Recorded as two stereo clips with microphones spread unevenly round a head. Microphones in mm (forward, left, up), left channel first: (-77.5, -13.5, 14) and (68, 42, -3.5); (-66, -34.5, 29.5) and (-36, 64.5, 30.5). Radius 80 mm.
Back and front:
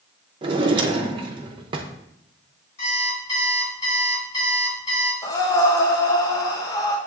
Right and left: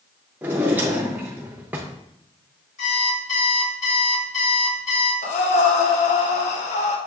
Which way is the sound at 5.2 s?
90° right.